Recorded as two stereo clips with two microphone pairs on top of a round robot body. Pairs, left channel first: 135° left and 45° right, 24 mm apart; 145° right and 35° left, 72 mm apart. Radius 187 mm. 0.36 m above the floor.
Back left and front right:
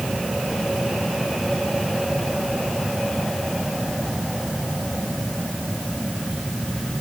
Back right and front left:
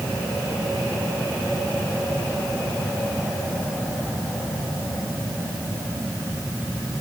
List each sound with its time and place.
Only background noise.